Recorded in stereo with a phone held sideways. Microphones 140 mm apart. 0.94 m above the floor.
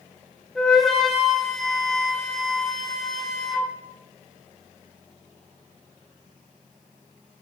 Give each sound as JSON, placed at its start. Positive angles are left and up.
{"t": 0.6, "sound": "a flute", "side_deg": 5, "distance_m": 1.0}